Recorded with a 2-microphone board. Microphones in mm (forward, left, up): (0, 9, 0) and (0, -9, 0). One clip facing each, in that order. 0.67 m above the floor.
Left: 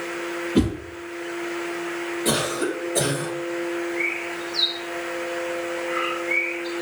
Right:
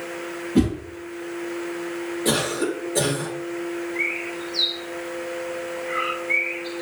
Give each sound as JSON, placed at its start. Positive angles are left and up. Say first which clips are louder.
{"t": 0.6, "sound": "a whoosh", "louder": "right 1 dB", "side_deg": 30, "distance_m": 3.0}
{"t": 2.2, "sound": "a cough", "louder": "right 1 dB", "side_deg": 5, "distance_m": 2.5}
{"t": 4.0, "sound": "a bird", "louder": "even", "side_deg": 5, "distance_m": 1.7}